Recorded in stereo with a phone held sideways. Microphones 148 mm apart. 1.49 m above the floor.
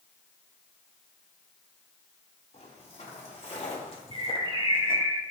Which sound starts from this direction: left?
Footsteps, at 2.5 s.